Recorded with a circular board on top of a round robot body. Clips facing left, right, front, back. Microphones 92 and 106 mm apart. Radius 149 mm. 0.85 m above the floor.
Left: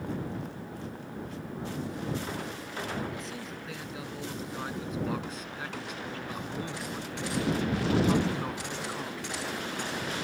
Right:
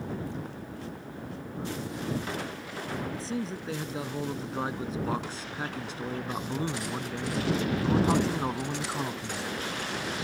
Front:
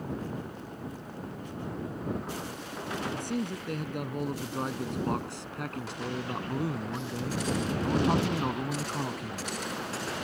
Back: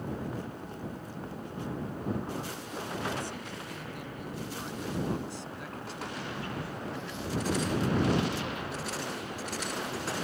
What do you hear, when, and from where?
3.1 s a man speaking: 30° right